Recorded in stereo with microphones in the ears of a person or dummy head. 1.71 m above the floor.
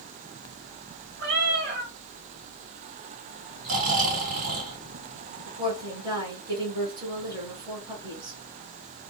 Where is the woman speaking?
25° right (ahead or behind), 1.3 m.